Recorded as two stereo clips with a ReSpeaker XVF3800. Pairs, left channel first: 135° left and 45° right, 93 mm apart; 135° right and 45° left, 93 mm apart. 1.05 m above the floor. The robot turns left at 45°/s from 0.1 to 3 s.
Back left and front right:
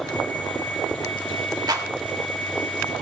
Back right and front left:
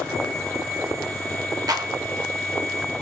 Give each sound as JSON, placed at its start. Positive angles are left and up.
{"t": 1.7, "sound": "a clap", "azimuth_deg": 0, "distance_m": 3.0}